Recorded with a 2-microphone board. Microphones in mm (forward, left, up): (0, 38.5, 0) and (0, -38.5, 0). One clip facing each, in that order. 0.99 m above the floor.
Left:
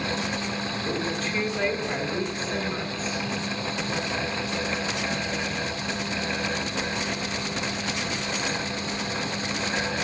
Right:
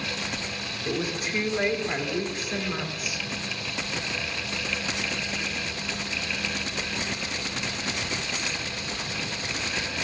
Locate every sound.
0.8 s a woman speaking: 15° right (ahead or behind), 2.5 m